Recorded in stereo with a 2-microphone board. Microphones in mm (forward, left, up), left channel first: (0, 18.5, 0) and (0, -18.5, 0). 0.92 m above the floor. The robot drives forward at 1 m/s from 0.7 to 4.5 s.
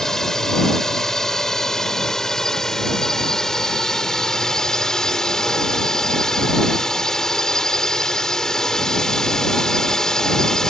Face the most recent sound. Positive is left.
turn(degrees=15)  # may be behind; listen again after turning